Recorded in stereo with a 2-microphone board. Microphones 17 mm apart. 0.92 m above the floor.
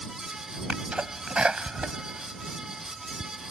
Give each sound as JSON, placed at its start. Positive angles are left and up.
{"t": 0.7, "sound": "a sneeze", "side_deg": -80}